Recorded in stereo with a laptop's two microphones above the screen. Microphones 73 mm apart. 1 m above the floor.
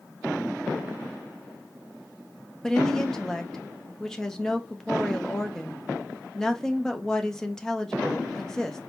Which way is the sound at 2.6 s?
10° left (ahead or behind).